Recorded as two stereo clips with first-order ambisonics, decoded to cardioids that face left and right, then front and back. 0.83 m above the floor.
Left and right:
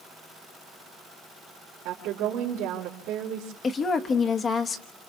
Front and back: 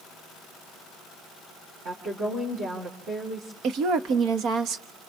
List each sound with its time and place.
1.9 s a woman speaking: 125° right, 3.5 m
3.6 s a woman speaking: 150° left, 1.2 m